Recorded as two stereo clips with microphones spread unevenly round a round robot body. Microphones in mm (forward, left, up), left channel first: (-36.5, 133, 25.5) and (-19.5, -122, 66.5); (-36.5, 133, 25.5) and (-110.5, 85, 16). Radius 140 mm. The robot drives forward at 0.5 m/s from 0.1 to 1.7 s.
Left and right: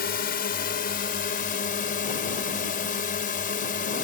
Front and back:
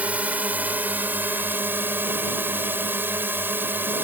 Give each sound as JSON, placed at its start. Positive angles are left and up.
{"t": 0.0, "sound": "a drone", "azimuth_deg": 140}